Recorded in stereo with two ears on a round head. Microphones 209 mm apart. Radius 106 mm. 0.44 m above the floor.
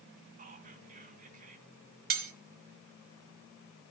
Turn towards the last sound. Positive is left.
turn(degrees=-40)  # may be behind; listen again after turning